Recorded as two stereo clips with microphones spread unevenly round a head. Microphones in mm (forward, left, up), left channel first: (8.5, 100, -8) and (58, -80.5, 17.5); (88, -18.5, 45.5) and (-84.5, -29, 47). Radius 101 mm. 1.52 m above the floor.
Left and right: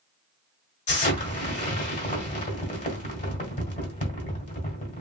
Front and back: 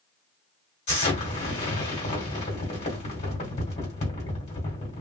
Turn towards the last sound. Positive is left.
turn(degrees=55)